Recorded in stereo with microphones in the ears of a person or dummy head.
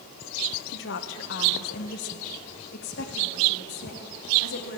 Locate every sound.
0.7 s a woman speaking: 65° left (ahead or behind), 1.2 m; by 4.8 s 55° left (ahead or behind), 3.5 m